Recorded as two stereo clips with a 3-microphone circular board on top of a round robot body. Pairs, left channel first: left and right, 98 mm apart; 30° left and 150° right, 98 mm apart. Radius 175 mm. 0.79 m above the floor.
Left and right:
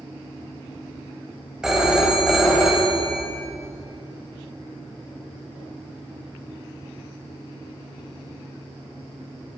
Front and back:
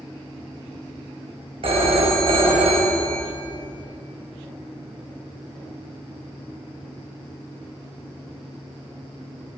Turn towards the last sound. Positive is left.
turn(degrees=-175)